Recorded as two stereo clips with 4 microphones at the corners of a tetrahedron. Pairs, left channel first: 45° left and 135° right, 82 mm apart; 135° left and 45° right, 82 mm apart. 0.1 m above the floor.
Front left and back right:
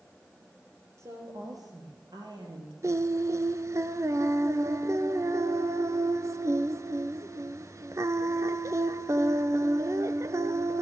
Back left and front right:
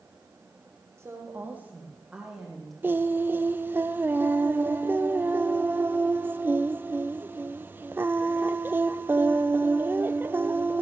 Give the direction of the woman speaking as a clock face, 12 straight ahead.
3 o'clock.